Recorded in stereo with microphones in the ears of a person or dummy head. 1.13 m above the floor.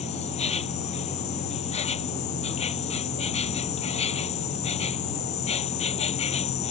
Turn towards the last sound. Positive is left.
turn(degrees=35)  # may be behind; listen again after turning